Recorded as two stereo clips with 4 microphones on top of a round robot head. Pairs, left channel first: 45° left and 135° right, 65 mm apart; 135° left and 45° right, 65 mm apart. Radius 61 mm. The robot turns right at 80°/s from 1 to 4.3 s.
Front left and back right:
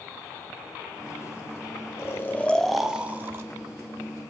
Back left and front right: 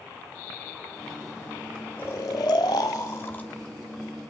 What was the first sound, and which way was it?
Snoring, 75° left.